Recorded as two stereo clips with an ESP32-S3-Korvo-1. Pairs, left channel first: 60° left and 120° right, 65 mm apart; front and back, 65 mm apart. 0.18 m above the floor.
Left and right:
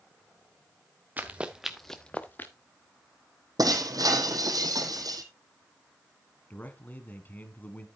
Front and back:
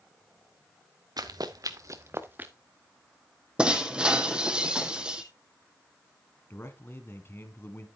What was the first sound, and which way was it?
Running footsteps, 175° left.